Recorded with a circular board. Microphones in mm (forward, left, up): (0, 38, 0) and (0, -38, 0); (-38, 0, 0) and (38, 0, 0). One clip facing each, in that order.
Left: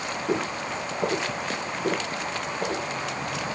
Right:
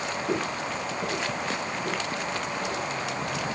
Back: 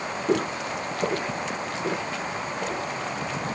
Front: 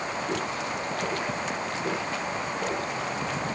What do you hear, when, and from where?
0.3 s footsteps: 160° left, 1.4 m; by 2.9 s 85° left, 2.5 m